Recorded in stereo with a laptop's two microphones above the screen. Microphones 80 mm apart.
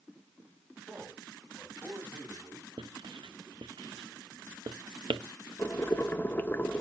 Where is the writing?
80° right, 0.6 m.